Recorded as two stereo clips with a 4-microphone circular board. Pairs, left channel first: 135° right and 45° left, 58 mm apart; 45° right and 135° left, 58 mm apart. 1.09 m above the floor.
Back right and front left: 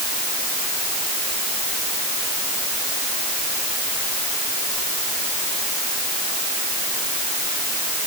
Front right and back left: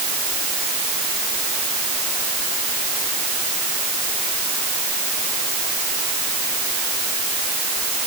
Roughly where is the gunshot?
No gunshot in this recording.